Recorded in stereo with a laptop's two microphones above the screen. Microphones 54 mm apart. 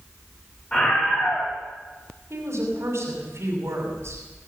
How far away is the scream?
About 5 m.